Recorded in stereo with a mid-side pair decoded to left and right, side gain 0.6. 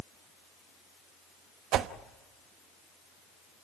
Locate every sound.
1.7 s a whoosh: 65° right, 1.1 m